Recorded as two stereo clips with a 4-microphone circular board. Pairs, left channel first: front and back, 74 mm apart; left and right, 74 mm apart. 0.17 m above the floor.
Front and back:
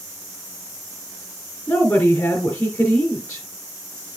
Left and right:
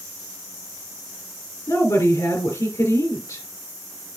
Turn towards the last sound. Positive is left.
turn(degrees=70)